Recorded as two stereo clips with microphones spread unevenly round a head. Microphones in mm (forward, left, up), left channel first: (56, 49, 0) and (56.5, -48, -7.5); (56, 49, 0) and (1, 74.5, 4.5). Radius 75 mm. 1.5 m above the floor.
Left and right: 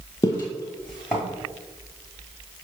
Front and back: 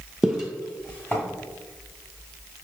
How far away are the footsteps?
About 1.7 m.